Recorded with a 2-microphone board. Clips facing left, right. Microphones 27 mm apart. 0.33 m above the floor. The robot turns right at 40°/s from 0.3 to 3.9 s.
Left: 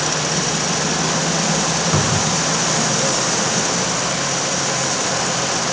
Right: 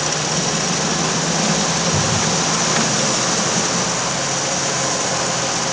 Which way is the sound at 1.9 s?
45° left (ahead or behind).